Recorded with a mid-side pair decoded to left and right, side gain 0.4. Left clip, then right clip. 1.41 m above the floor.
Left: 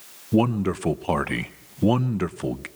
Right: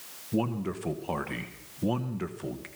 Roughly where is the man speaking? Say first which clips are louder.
Left 9 dB; ahead left.